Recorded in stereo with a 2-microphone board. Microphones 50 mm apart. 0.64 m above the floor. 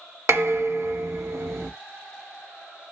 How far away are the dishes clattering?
About 1.4 m.